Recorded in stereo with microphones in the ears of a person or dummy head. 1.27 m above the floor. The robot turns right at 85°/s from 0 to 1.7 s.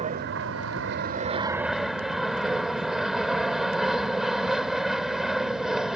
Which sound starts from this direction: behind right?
An aircraft, at 0.0 s.